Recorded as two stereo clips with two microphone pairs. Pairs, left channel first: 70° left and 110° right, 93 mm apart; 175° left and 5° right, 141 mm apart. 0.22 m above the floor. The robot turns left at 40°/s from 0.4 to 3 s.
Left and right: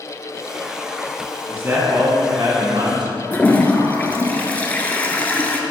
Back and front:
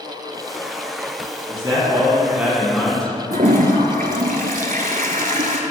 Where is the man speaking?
45° right, 1.8 m; by 3.2 s 105° right, 1.8 m.